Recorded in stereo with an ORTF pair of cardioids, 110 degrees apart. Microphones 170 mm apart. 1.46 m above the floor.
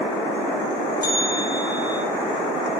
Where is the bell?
25° left, 6 m.